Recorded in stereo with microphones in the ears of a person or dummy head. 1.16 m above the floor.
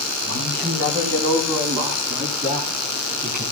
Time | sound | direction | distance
0.2 | a man speaking | 50° right (ahead or behind) | 7.5 m